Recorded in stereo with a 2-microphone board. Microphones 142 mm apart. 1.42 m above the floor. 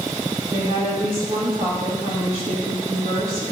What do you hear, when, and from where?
0.5 s a woman speaking: 80° right, 2.5 m